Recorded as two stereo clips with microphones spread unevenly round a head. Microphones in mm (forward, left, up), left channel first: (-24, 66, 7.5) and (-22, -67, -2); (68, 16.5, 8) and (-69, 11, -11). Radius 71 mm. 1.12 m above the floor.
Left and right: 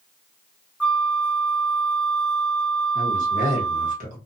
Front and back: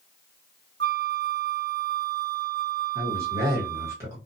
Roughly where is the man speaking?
Right.